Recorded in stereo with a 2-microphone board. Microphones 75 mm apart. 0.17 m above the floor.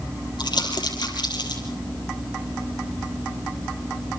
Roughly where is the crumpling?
Left.